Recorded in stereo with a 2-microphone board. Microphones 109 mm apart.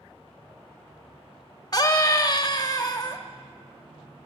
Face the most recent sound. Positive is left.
turn(degrees=35)  # may be behind; listen again after turning